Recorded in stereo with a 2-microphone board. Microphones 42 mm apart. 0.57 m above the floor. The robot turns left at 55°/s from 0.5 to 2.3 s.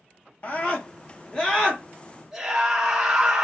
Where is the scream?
75° left, 0.8 m; by 3.5 s 25° right, 0.8 m.